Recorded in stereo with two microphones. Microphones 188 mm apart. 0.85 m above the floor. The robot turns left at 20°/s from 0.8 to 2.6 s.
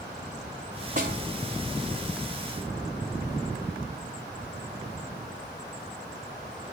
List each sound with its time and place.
1.0 s a snare drum: 45° right (ahead or behind), 5 m; by 1.2 s 50° right (ahead or behind), 5 m